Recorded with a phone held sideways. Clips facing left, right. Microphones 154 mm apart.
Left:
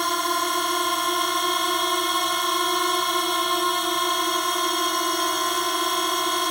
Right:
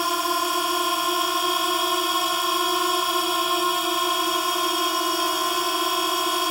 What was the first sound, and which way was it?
A drone, 5° right (ahead or behind).